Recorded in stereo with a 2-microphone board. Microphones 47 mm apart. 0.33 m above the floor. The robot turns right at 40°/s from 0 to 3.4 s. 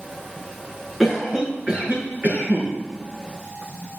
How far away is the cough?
About 5 m.